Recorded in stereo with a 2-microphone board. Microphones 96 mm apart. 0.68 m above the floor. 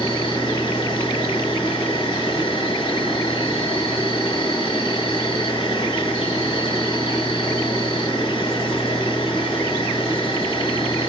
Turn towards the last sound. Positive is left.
turn(degrees=65)  # may be behind; listen again after turning